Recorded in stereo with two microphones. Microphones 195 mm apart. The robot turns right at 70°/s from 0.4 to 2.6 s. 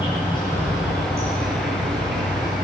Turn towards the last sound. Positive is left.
turn(degrees=-50)